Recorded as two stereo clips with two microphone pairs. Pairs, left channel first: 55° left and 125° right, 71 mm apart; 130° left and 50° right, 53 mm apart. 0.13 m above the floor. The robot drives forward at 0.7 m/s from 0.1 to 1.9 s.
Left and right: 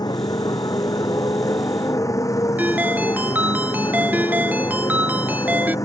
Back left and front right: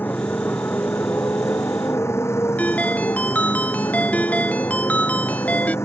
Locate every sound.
0.0 s a motorcycle: 80° left; by 5.8 s 95° left
2.6 s a ringtone: straight behind